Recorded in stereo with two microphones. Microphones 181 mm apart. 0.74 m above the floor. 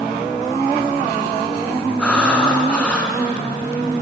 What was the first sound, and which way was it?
Breathing, 5° left (ahead or behind).